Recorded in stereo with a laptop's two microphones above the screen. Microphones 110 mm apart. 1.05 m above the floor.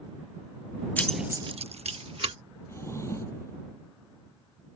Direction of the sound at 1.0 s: 15° left (ahead or behind).